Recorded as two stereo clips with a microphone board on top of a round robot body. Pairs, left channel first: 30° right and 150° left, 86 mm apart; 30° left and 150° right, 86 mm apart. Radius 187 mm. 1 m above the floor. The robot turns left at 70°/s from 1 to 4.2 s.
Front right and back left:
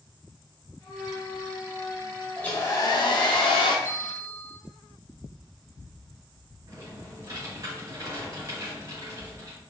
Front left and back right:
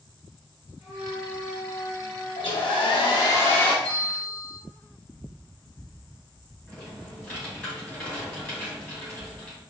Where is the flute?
85° right, 0.9 m; by 3.0 s 135° left, 0.9 m.